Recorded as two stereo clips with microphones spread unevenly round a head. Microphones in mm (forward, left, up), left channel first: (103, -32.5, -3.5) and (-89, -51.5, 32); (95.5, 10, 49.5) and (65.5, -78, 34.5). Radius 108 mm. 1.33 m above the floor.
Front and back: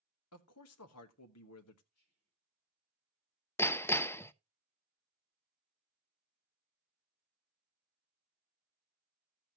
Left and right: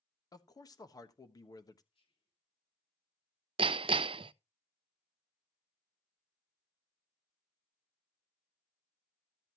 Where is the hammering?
75° right, 0.5 m.